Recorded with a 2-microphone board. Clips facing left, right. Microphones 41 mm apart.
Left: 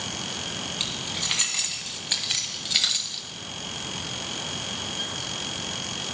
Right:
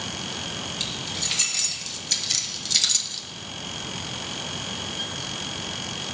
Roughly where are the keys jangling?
Left.